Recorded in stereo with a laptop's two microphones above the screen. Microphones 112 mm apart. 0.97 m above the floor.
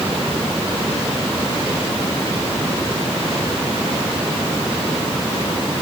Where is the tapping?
I don't hear tapping.